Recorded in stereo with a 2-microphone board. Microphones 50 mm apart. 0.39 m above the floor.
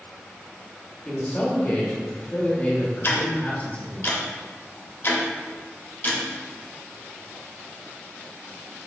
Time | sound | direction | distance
1.1 | a man speaking | 30° left (ahead or behind) | 1.0 m
3.0 | ticking | 50° left (ahead or behind) | 0.8 m